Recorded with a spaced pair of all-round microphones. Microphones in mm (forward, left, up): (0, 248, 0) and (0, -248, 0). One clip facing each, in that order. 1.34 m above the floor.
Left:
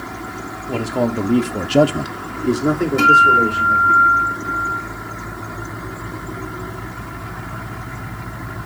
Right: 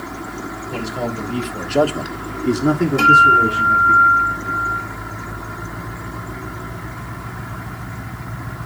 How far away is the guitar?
About 1.8 m.